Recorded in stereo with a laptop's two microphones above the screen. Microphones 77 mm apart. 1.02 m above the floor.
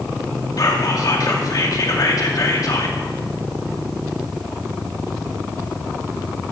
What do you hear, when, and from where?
0.6 s whispering: 50° left (ahead or behind), 2 m